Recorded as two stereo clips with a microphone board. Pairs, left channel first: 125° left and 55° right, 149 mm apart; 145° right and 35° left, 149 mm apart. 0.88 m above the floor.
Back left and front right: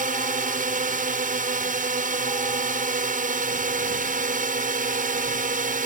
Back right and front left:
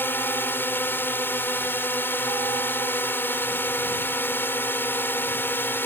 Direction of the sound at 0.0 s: 70° right.